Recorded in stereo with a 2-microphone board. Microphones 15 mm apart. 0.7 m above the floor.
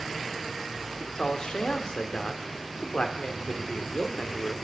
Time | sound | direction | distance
1.0 | a man speaking | 65° left (ahead or behind) | 2.5 m